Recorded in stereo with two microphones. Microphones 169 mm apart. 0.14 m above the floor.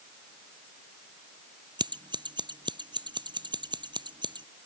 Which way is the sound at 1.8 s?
25° right (ahead or behind).